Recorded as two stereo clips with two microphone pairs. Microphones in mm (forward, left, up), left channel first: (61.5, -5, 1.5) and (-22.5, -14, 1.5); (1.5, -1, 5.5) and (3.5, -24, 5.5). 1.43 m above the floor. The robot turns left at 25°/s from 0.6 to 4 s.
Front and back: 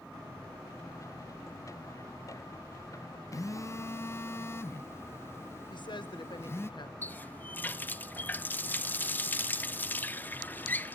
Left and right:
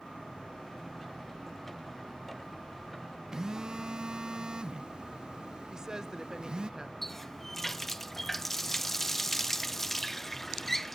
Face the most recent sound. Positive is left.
turn(degrees=35)